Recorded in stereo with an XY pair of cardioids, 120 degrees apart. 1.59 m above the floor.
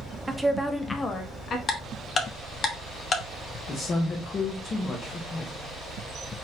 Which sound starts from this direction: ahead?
A woman speaking, at 0.3 s.